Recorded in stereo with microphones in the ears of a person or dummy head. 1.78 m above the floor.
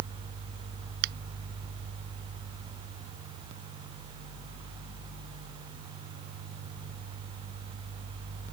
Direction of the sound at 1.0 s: 55° right (ahead or behind).